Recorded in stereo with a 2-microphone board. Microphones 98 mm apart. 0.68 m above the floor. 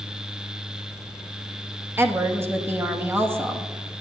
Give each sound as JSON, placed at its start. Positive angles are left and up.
{"t": 2.0, "sound": "a woman speaking", "side_deg": -25, "distance_m": 1.1}